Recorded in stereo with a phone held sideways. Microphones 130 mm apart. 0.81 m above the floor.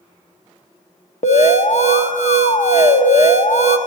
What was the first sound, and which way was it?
An alarm, 60° left (ahead or behind).